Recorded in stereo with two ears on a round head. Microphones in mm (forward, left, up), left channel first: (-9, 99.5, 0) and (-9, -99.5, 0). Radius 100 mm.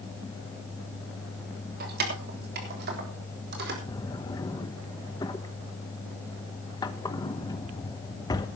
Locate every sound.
1.8 s keys jangling: 45° right (ahead or behind), 3 m
3.9 s a drawer: 20° left (ahead or behind), 1.1 m